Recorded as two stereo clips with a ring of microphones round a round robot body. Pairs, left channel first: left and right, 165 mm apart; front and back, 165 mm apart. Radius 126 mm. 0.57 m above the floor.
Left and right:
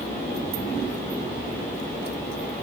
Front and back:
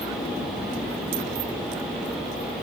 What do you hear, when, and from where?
Only background noise.